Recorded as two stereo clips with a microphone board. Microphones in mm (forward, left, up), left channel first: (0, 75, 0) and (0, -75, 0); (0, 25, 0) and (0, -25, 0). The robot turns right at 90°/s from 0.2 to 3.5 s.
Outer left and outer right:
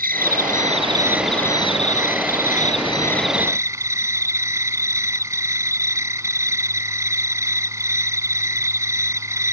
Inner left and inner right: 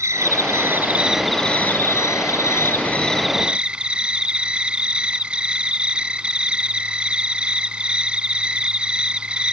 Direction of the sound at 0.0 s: 95° right.